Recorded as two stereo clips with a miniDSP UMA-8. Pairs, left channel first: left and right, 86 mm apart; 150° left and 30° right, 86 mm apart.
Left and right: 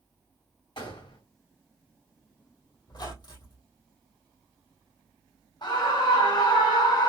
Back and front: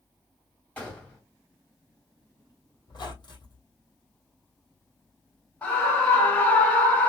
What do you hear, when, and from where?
0.8 s a gunshot: 75° left, 2.5 m
2.9 s a squeak: 120° left, 2.5 m
5.6 s a scream: 85° left, 1.7 m